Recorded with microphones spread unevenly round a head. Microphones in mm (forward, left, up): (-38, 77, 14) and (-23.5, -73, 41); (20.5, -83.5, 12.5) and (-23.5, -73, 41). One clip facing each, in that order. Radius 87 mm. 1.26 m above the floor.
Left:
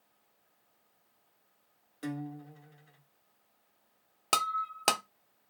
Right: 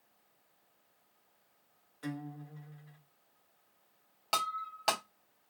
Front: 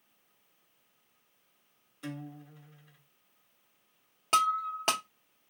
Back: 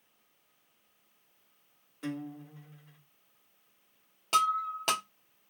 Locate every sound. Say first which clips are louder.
2.0 s a guitar: left 3 dB, back 4 dB; 145° left, 1.0 m
4.3 s breaking glass: left 3 dB, even; 95° left, 0.5 m